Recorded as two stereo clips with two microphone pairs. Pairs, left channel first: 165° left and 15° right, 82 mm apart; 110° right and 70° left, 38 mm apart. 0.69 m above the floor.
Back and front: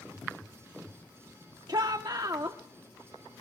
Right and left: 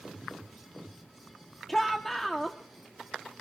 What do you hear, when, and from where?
1.7 s a shout: 30° right, 1.0 m